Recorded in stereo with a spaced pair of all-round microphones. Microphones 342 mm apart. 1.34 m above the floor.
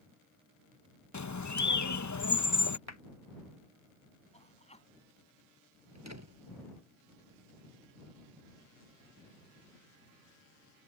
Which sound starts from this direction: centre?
A man speaking, at 4.3 s.